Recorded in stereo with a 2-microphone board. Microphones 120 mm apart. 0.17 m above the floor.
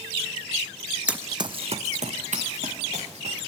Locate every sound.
1.1 s running footsteps: 10° right (ahead or behind), 0.5 m; by 3.4 s 75° right (ahead or behind), 1.7 m